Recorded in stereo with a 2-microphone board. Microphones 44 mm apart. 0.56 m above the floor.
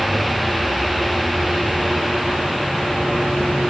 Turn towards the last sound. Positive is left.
No sound to turn to.